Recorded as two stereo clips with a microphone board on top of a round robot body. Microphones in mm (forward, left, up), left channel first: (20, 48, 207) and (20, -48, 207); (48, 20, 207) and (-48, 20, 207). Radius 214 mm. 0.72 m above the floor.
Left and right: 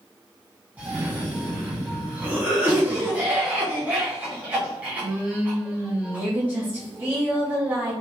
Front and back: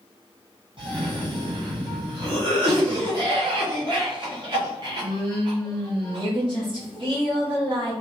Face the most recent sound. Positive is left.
turn(degrees=-160)